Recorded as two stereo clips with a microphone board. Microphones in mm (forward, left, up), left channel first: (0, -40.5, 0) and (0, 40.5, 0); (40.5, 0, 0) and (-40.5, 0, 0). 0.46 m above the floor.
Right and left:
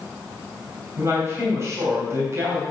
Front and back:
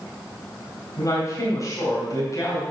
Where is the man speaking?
40° left, 3 m.